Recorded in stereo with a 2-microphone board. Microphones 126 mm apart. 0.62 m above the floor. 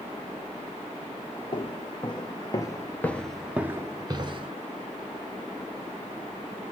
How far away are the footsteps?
About 1.2 m.